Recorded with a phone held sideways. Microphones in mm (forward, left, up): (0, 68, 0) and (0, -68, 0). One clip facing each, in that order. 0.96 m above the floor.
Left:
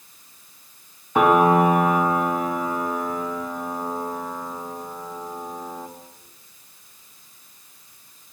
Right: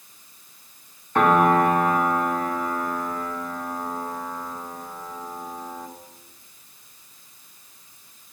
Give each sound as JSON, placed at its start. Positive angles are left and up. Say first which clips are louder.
{"t": 1.1, "sound": "a piano", "louder": "left 2 dB", "side_deg": 10, "distance_m": 1.8}